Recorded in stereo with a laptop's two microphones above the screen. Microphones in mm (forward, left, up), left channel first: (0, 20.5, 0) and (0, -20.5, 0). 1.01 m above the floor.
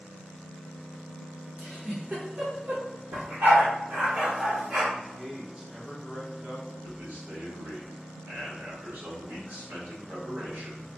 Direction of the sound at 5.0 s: 20° right (ahead or behind).